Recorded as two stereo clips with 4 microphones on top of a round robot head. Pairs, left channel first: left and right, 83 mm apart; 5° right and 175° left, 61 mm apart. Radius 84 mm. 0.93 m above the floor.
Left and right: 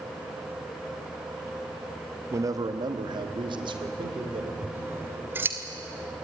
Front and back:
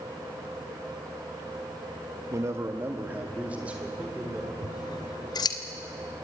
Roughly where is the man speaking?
Behind right.